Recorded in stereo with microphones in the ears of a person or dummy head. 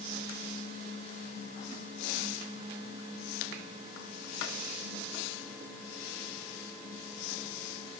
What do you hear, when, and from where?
Only background noise.